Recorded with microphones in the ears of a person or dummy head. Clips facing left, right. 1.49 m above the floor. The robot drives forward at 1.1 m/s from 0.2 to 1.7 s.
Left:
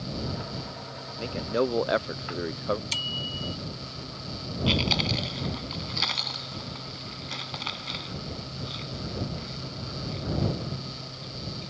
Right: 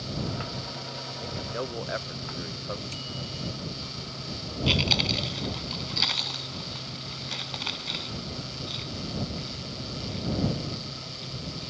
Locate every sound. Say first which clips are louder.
1.2 s a man speaking: left 8 dB; 30° left (ahead or behind); by 2.8 s 55° left (ahead or behind)
2.9 s a bicycle bell: even; 85° left
4.7 s chewing: left 1 dB; 10° right (ahead or behind)